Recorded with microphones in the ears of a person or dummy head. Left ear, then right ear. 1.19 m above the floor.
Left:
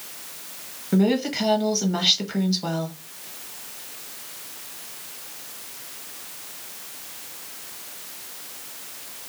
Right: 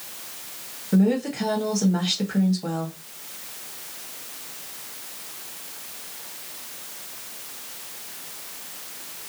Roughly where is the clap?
I don't hear a clap.